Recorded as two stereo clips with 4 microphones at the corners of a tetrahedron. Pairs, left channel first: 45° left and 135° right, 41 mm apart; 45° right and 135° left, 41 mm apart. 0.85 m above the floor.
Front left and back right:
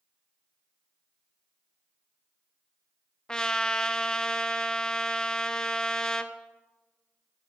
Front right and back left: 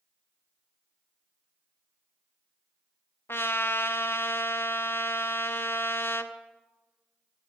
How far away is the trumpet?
About 0.5 m.